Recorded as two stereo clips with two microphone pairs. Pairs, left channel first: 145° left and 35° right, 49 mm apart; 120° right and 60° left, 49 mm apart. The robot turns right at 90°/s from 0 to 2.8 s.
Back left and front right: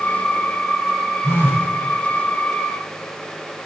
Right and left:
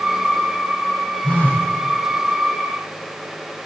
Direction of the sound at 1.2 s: 170° left.